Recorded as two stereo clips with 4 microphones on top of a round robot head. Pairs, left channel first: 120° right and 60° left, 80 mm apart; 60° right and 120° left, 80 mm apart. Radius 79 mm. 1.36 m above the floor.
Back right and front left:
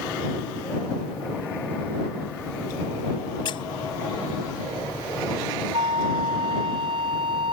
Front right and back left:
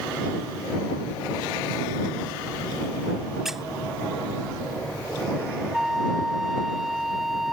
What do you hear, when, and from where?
3.5 s a squeak: 150° right
5.7 s a flute: 35° left